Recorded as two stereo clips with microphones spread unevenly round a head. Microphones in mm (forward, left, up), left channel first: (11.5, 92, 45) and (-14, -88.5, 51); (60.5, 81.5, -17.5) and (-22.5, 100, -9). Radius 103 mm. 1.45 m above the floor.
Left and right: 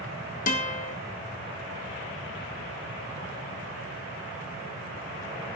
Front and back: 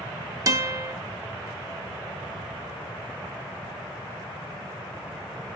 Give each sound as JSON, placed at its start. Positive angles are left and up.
{"t": 0.5, "sound": "a guitar", "azimuth_deg": 130, "distance_m": 0.9}